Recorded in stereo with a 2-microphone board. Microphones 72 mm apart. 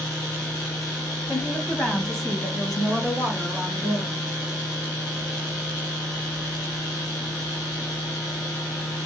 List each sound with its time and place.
1.3 s a woman speaking: 20° left (ahead or behind), 1.2 m; by 4.2 s 10° right (ahead or behind), 2 m